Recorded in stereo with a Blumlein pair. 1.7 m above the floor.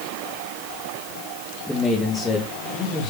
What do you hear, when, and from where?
1.7 s a man speaking: 5° left, 2 m; by 3.1 s 25° left, 2.5 m